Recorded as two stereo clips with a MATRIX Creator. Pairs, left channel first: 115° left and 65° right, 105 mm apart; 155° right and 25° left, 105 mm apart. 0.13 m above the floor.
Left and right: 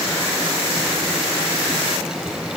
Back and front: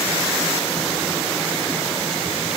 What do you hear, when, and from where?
Only background noise.